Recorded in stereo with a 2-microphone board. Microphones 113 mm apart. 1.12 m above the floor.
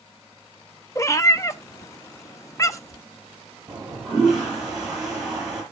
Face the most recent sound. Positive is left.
turn(degrees=-5)  # may be behind; listen again after turning